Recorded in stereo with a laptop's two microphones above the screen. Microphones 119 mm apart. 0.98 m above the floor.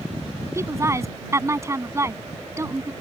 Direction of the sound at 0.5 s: 25° right (ahead or behind).